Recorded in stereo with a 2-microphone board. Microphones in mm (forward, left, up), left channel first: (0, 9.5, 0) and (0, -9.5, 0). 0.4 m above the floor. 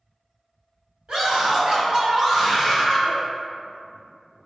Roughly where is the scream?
Right.